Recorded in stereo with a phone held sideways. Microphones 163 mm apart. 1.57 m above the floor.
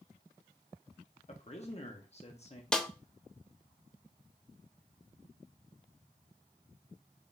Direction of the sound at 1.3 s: 40° left (ahead or behind).